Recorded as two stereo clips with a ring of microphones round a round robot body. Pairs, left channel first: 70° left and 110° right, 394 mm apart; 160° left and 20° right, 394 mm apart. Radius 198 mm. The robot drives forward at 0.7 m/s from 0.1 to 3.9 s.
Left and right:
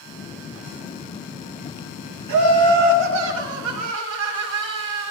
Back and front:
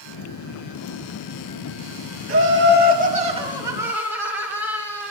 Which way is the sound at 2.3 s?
80° right.